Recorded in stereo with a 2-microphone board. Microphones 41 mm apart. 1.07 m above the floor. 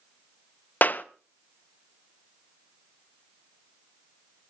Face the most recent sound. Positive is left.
turn(degrees=45)  # may be behind; listen again after turning